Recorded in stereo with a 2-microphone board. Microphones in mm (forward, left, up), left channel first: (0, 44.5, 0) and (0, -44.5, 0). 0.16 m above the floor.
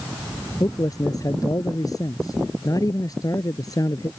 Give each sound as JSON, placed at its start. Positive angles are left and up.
{"t": 0.6, "sound": "a man speaking", "side_deg": 40}